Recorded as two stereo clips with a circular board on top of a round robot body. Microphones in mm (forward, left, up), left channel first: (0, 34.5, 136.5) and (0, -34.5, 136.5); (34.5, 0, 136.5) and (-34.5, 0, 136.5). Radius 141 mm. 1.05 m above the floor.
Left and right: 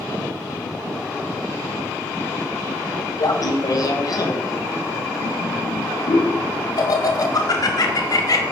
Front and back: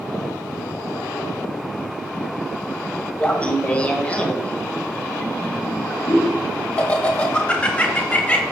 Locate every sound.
3.2 s laughter: 70° left, 1.7 m